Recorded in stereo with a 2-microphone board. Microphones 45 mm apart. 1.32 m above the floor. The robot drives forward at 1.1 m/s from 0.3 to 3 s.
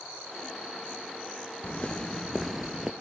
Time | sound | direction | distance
1.6 | footsteps | 30° left (ahead or behind) | 1.6 m